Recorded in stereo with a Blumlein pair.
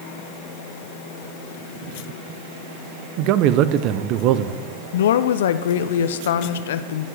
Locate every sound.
3.2 s a man speaking: 40° right, 0.6 m
4.9 s a woman speaking: 60° left, 0.5 m